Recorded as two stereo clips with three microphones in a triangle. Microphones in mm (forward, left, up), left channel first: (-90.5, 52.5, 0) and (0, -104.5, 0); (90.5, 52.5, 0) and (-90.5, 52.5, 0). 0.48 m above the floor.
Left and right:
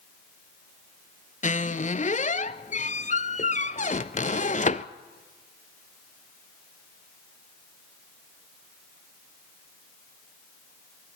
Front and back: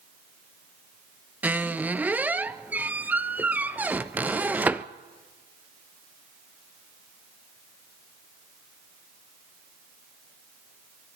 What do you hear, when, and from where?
1.4 s a squeak: 100° left, 0.6 m